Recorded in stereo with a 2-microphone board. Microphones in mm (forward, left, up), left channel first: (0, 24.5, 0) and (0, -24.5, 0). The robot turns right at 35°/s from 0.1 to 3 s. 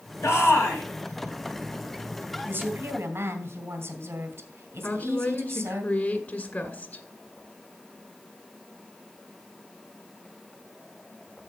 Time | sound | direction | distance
0.2 | a shout | 70° left (ahead or behind) | 3 m
2.5 | a woman speaking | 40° right (ahead or behind) | 2.5 m
4.8 | a woman speaking | 40° left (ahead or behind) | 2 m